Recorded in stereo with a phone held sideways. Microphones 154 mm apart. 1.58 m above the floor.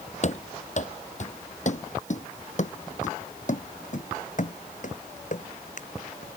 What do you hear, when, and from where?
0.2 s running footsteps: 50° left (ahead or behind); by 6.4 s 55° left (ahead or behind)